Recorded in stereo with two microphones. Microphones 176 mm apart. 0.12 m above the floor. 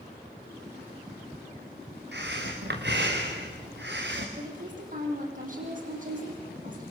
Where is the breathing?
80° right, 5 m.